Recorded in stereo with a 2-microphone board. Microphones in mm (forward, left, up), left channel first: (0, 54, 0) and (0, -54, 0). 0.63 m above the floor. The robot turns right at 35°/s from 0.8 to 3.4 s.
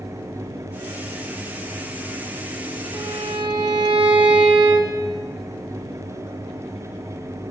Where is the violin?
35° right (ahead or behind), 2.5 m; by 5.0 s 50° right (ahead or behind), 2.5 m.